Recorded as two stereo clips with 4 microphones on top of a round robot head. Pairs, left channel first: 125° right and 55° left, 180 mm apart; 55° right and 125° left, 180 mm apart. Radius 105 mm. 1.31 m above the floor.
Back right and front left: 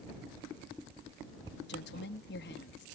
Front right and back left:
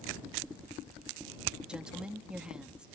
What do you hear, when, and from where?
1.7 s a woman speaking: 150° right